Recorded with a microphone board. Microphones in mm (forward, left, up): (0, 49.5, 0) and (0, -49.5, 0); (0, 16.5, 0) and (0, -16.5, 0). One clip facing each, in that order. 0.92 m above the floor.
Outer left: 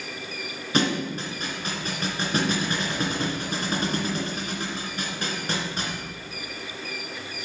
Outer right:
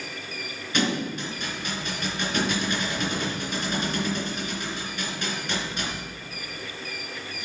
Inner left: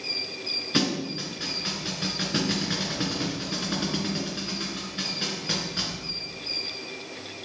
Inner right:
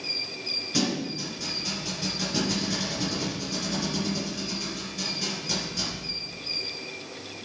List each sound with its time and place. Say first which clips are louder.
0.7 s a thud: outer left 2 dB, inner left 2 dB; 40° left (ahead or behind), 3 m